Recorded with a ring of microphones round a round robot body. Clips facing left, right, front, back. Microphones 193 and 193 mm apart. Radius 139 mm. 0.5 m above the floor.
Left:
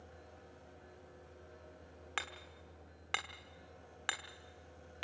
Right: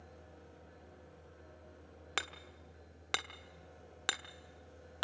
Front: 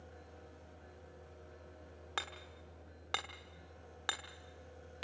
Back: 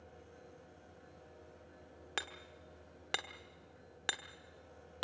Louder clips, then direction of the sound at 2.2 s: Right 3 dB, even; 115° right.